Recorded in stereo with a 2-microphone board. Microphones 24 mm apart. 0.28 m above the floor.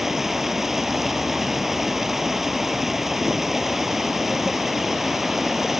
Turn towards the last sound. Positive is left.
turn(degrees=-10)  # may be behind; listen again after turning